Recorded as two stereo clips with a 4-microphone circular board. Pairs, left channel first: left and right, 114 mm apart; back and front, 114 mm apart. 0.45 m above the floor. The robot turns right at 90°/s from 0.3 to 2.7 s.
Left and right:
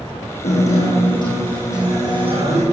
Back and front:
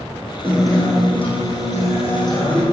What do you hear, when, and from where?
0.4 s a guitar: 70° left, 5.5 m; by 2.6 s 90° right, 5.5 m